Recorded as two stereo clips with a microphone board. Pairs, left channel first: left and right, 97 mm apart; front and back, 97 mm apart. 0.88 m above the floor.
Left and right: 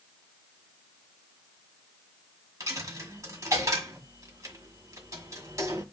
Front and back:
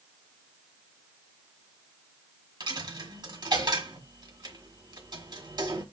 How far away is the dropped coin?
About 1.6 m.